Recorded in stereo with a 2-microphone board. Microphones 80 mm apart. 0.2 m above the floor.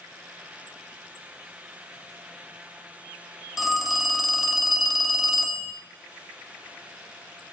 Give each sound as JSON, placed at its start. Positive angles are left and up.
{"t": 3.6, "sound": "a phone ringing", "side_deg": -5, "distance_m": 0.7}